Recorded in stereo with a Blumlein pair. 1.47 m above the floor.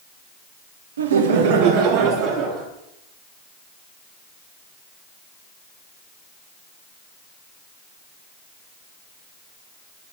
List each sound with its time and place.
1.0 s laughter: 65° right, 1.0 m; by 2.7 s 35° right, 2 m